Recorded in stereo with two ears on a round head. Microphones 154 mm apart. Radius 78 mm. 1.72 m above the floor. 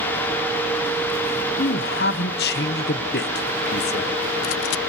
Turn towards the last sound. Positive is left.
turn(degrees=65)  # may be behind; listen again after turning